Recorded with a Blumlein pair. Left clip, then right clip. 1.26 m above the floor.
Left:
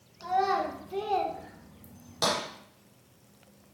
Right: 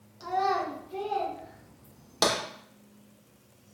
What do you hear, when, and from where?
0.2 s a child speaking: 5° left, 1.0 m; by 2.2 s 55° left, 1.5 m
2.2 s tapping: 70° right, 1.3 m